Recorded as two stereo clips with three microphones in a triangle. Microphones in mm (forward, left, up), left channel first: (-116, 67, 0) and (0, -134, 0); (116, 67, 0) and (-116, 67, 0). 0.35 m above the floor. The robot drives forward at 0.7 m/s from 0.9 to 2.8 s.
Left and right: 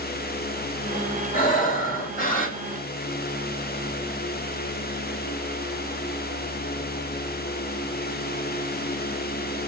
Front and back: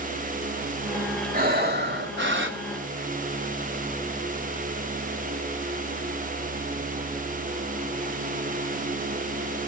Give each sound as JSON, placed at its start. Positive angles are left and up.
{"t": 1.3, "sound": "breathing", "azimuth_deg": 155, "distance_m": 1.4}